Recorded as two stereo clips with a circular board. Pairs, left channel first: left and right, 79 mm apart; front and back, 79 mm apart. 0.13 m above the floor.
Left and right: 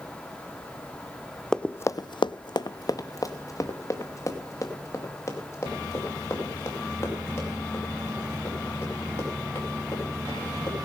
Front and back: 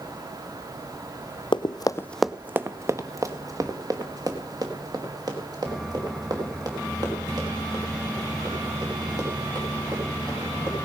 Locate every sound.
1.5 s running footsteps: 10° left, 0.5 m; by 10.9 s 150° left, 7.5 m